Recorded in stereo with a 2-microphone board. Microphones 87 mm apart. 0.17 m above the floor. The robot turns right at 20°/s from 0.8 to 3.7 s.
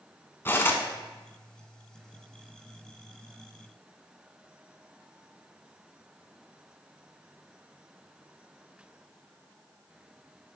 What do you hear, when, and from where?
0.5 s cutlery clinking: 25° left (ahead or behind), 1.0 m